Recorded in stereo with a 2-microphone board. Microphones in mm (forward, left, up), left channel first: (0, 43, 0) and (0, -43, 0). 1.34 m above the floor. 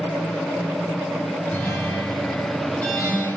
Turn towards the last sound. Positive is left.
turn(degrees=25)  # may be behind; listen again after turning